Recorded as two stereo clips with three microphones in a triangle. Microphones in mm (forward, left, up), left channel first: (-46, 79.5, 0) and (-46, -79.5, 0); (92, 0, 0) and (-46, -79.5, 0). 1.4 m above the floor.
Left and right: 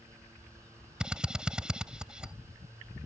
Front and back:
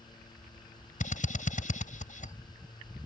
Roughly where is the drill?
Ahead.